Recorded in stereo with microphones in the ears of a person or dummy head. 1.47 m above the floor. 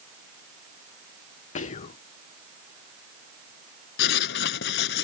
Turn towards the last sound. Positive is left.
turn(degrees=65)  # may be behind; listen again after turning